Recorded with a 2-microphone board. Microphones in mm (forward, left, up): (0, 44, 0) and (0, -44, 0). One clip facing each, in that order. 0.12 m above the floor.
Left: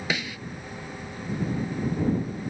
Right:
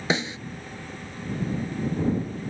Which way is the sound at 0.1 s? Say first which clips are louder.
Right 5 dB; 30° right (ahead or behind).